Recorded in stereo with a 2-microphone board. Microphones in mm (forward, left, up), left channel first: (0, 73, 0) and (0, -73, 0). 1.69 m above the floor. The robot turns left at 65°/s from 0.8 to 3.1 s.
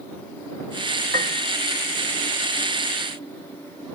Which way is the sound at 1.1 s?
75° right (ahead or behind).